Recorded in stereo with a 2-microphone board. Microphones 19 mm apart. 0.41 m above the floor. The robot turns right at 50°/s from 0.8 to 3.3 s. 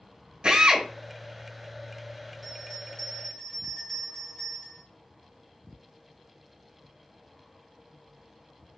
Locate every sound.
0.4 s a drill: 60° right (ahead or behind), 2.5 m
2.4 s a bell: 10° left, 1.9 m; by 4.8 s 55° left, 1.9 m